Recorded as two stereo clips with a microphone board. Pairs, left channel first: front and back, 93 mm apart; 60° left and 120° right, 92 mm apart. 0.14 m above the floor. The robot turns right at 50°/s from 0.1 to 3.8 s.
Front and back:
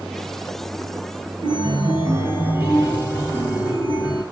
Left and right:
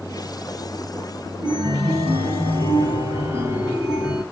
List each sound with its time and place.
1.4 s a chime: 160° right, 5.5 m; by 4.2 s 45° right, 5.5 m